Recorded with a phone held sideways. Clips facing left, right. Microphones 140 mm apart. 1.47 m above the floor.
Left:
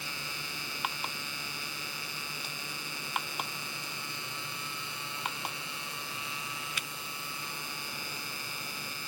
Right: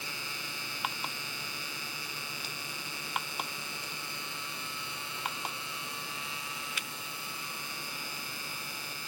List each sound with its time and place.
Only background noise.